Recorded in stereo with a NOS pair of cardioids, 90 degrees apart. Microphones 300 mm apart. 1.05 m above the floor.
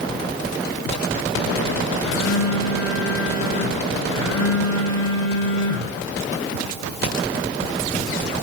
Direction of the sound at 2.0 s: 50° left.